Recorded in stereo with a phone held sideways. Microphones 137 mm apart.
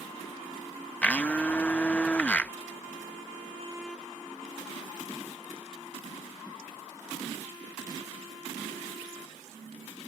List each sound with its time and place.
1.0 s a blender: 10° left (ahead or behind)